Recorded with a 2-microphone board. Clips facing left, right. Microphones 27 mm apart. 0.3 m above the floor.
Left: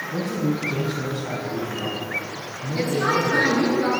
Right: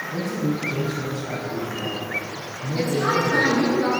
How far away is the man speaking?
About 2.5 m.